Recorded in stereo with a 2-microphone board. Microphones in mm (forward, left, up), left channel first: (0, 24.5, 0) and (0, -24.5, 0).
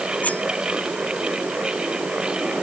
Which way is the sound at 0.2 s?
30° left (ahead or behind).